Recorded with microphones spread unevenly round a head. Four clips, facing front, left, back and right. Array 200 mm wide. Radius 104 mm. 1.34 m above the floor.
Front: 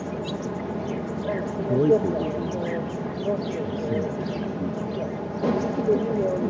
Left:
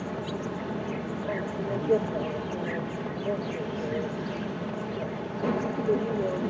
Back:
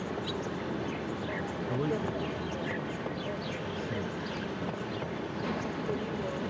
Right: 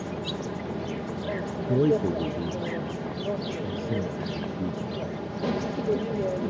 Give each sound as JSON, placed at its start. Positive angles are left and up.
{"t": 0.0, "sound": "an insect", "azimuth_deg": 5}
{"t": 1.7, "sound": "a man speaking", "azimuth_deg": -45}